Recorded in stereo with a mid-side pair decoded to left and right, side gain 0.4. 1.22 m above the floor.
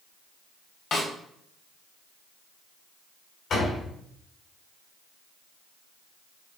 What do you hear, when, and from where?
0.9 s a snare drum: 65° left, 3 m
3.5 s a door slam: 70° left, 3.5 m